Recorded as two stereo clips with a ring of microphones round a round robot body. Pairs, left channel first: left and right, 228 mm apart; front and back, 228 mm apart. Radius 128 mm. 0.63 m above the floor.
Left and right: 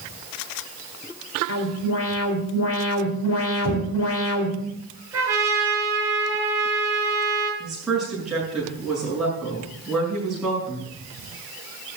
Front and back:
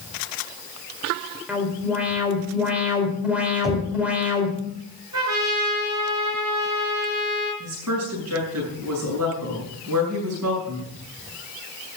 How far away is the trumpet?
About 7.5 m.